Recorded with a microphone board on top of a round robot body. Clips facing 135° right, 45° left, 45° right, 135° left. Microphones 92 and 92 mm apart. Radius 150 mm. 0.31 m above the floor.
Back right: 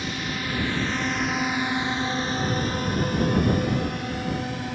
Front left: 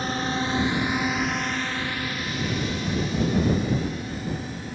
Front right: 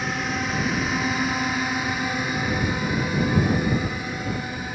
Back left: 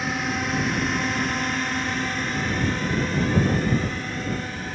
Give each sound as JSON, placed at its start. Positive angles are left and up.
{"t": 0.0, "sound": "a drone", "azimuth_deg": 45}